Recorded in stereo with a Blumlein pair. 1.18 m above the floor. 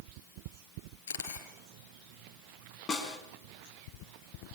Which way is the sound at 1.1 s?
60° left.